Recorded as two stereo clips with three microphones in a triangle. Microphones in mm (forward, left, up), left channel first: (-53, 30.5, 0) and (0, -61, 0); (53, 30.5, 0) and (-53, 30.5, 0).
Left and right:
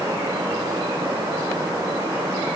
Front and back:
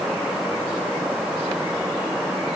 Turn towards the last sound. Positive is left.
No sound to turn to.